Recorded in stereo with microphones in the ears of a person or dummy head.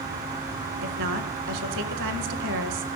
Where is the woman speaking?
70° right (ahead or behind), 1.8 m.